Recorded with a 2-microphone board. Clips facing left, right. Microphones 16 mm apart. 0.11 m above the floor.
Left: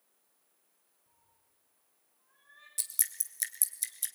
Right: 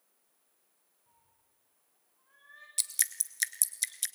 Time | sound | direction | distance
1.1 | a cat meowing | 65° right (ahead or behind) | 9.5 m
2.8 | dripping | 35° right (ahead or behind) | 1.2 m